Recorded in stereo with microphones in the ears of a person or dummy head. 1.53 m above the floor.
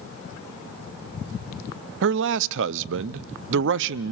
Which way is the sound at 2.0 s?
65° right (ahead or behind).